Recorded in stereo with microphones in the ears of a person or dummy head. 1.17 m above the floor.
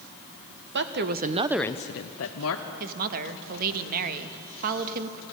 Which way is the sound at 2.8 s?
45° right (ahead or behind).